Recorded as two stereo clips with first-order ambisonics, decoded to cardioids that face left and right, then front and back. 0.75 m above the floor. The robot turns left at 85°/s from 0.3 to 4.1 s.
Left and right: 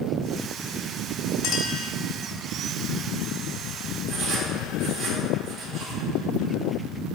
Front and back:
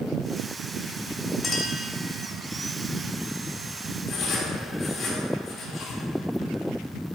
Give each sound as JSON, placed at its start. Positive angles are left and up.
{"t": 1.4, "sound": "a clink", "azimuth_deg": 70, "distance_m": 1.3}
{"t": 4.1, "sound": "writing", "azimuth_deg": -40, "distance_m": 1.5}